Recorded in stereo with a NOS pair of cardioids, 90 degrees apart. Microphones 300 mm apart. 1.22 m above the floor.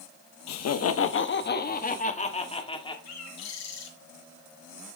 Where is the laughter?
65° left, 1.1 m; by 3.0 s 15° left, 2.5 m.